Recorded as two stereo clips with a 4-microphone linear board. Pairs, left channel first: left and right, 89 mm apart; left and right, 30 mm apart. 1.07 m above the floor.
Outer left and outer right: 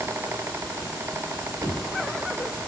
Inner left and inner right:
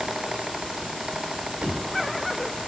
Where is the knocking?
45° right (ahead or behind), 1.9 m.